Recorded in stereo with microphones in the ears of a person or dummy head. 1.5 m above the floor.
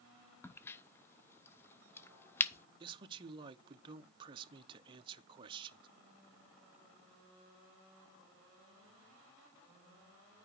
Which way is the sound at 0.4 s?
20° left (ahead or behind).